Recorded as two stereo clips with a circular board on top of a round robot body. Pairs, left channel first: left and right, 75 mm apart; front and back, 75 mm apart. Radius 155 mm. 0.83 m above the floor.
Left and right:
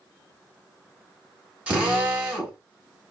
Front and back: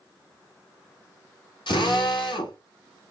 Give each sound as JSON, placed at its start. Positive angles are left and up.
{"t": 1.7, "sound": "a drill", "azimuth_deg": -15, "distance_m": 1.6}